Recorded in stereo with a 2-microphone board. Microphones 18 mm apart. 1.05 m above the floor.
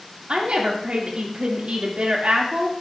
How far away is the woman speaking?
About 2 m.